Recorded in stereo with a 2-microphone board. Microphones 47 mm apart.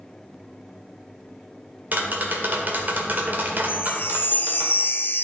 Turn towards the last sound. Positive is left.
turn(degrees=55)  # may be behind; listen again after turning